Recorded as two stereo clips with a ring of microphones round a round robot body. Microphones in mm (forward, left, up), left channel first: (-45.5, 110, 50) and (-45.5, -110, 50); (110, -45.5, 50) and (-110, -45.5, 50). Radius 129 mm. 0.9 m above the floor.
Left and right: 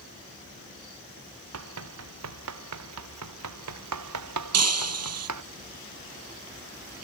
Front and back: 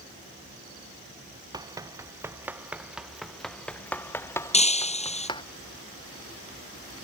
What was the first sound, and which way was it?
Running footsteps, 105° right.